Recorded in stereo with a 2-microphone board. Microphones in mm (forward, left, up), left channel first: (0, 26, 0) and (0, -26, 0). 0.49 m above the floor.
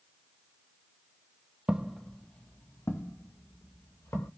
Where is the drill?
I don't hear a drill.